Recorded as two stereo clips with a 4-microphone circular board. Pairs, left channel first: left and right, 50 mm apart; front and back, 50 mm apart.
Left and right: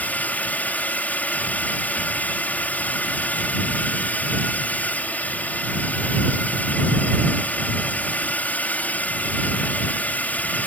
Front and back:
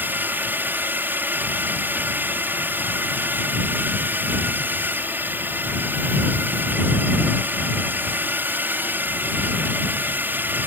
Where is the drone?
140° left.